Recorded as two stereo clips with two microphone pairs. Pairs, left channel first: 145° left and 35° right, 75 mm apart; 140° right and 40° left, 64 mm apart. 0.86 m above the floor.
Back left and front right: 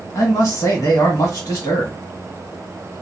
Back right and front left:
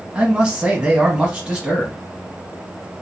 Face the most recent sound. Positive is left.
turn(degrees=115)